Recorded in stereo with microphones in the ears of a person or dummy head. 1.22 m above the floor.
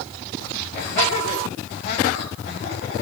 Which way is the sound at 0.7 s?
65° left (ahead or behind).